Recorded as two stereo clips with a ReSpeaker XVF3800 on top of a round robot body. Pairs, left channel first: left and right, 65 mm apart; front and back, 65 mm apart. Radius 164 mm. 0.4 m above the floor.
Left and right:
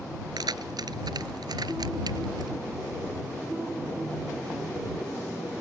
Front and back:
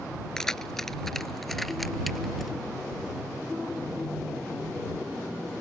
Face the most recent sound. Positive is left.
turn(degrees=-90)